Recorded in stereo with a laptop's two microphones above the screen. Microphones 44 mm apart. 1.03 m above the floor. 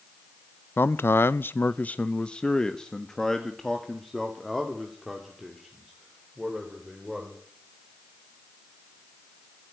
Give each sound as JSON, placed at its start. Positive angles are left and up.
{"t": 0.8, "sound": "a man speaking", "side_deg": 55, "distance_m": 0.5}